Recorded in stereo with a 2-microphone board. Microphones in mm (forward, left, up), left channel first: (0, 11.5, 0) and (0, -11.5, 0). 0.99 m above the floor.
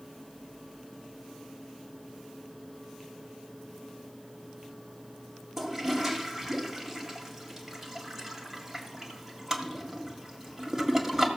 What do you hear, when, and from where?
5.6 s a toilet flushing: 20° right (ahead or behind), 1.8 m